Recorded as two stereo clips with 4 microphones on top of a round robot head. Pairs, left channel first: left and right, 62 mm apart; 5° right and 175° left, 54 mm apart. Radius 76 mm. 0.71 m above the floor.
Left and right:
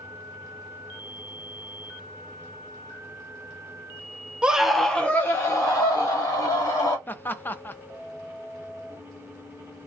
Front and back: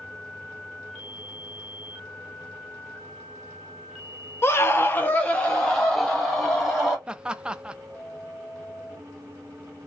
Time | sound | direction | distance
4.4 | a scream | 25° right | 0.8 m
7.1 | laughter | 115° left | 0.5 m